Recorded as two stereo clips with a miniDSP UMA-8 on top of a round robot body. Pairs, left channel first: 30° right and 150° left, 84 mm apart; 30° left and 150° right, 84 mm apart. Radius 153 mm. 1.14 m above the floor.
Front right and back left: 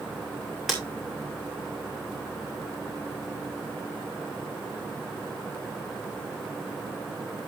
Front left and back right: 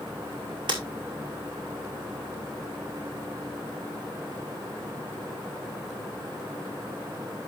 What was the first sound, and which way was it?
Breaking glass, 120° right.